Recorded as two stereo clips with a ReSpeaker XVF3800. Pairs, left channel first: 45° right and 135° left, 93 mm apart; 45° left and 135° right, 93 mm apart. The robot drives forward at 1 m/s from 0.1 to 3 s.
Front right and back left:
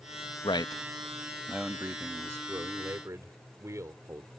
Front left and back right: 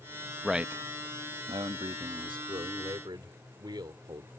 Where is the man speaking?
45° right; by 4.3 s 170° right.